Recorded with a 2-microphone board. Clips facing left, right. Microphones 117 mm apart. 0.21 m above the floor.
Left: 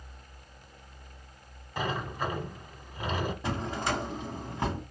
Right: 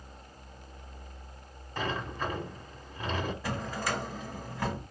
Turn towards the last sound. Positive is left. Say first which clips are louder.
# left 2 dB
turn(degrees=20)  # may be behind; listen again after turning